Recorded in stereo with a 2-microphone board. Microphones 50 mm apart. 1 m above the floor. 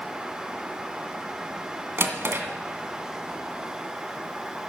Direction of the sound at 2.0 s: 50° right (ahead or behind).